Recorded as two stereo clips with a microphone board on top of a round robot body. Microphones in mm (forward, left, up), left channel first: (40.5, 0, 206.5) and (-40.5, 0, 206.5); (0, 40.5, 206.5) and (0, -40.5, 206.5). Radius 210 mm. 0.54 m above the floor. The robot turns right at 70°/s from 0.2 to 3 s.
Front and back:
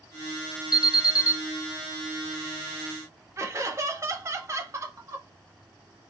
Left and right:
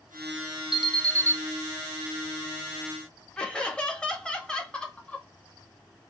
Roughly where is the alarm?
Ahead.